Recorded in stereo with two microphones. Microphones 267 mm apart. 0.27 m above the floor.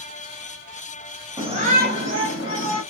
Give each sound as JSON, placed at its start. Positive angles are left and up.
{"t": 1.4, "sound": "a shout", "side_deg": -15, "distance_m": 1.1}